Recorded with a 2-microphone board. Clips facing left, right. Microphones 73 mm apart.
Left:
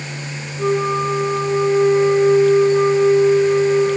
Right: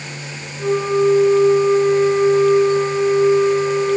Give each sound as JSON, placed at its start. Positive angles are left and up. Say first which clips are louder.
{"t": 0.6, "sound": "a flute", "louder": "right 2 dB", "side_deg": 35, "distance_m": 5.5}